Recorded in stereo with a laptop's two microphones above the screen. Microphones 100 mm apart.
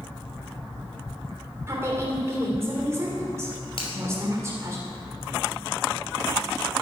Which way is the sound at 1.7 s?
30° right (ahead or behind).